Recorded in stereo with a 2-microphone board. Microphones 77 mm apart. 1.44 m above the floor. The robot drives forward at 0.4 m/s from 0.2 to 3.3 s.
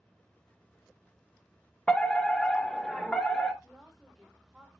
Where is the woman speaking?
Centre (ahead or behind), 2.5 m.